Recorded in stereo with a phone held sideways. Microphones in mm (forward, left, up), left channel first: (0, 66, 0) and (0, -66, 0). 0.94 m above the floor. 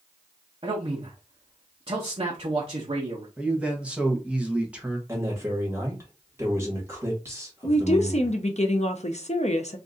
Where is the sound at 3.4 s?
10° right (ahead or behind), 1.0 m.